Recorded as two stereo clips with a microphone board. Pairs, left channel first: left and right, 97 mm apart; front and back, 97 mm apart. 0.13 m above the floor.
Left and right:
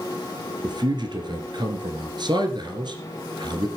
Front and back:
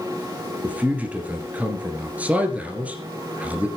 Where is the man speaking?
110° right, 1.7 m.